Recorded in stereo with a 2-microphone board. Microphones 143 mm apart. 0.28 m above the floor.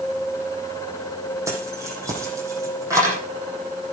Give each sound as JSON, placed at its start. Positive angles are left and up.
{"t": 1.5, "sound": "keys jangling", "side_deg": -20, "distance_m": 7.5}